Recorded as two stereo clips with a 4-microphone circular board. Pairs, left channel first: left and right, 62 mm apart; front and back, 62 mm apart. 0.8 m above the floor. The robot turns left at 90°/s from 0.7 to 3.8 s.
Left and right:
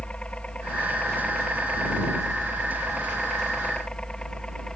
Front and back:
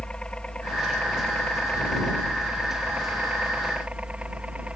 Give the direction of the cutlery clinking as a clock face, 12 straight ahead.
I don't hear cutlery clinking.